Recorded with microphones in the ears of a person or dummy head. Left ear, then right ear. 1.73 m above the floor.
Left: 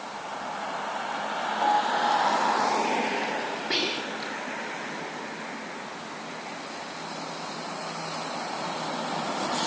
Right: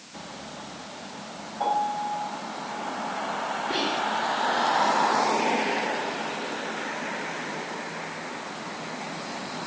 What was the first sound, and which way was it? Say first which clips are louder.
A piano: left 2 dB; 20° right (ahead or behind).